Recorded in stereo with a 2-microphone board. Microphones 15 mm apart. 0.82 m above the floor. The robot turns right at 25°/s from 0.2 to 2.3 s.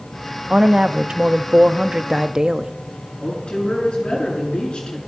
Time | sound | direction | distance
0.5 | a woman speaking | 90° right | 0.7 m
3.2 | a woman speaking | 75° left (ahead or behind) | 7.5 m